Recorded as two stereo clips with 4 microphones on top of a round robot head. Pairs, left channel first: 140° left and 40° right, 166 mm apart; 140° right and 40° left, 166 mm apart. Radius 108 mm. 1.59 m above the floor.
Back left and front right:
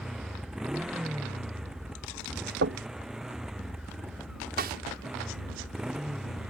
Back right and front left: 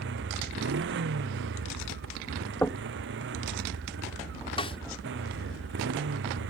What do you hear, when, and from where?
0.0 s a motorcycle: 45° left
2.6 s knocking: 55° right
4.6 s a snare drum: 75° right